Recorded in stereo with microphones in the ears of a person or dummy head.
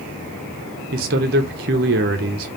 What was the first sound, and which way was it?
A man speaking, 50° right (ahead or behind).